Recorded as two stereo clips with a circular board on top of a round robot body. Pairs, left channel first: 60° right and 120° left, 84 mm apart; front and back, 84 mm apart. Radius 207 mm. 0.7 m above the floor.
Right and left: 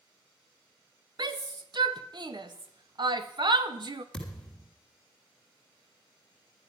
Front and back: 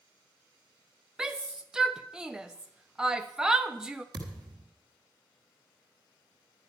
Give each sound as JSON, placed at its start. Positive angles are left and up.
{"t": 1.2, "sound": "a shout", "azimuth_deg": 100, "distance_m": 1.2}
{"t": 4.1, "sound": "a thud", "azimuth_deg": -140, "distance_m": 1.6}